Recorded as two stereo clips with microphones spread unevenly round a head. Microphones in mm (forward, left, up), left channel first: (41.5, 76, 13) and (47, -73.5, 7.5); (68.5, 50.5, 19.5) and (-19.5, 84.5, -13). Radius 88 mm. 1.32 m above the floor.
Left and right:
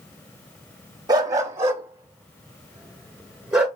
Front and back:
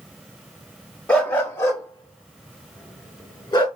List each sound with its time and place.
1.1 s a dog barking: 45° right, 0.8 m; by 3.7 s straight ahead, 1.9 m